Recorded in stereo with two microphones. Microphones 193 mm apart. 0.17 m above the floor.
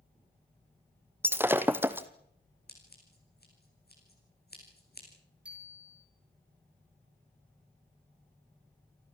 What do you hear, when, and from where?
1.2 s breaking glass: 10° right (ahead or behind), 1.3 m
2.7 s scissors: 60° left (ahead or behind), 7.5 m
5.5 s a bicycle bell: 5° right (ahead or behind), 5.5 m